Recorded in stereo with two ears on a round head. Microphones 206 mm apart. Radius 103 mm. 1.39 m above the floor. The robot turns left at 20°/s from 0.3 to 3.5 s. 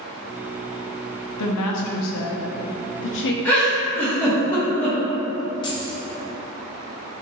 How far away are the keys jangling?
About 0.6 m.